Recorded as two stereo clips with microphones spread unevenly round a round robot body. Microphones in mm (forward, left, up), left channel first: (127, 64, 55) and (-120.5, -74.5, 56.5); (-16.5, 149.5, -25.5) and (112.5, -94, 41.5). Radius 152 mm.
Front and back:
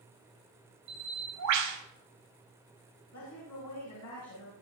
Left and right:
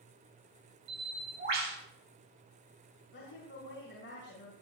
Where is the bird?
125° right, 4 m.